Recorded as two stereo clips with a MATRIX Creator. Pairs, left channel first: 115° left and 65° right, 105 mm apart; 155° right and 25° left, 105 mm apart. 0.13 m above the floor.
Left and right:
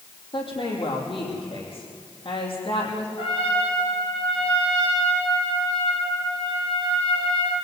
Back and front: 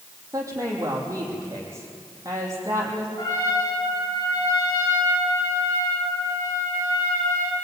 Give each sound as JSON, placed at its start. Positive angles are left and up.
{"t": 0.3, "sound": "a woman speaking", "azimuth_deg": 80, "distance_m": 6.0}
{"t": 3.2, "sound": "a trumpet", "azimuth_deg": 145, "distance_m": 10.0}